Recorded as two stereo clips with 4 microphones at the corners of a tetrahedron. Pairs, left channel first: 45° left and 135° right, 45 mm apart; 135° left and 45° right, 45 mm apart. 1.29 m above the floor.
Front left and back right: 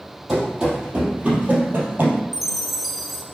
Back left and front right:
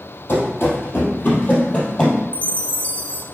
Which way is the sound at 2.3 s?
140° left.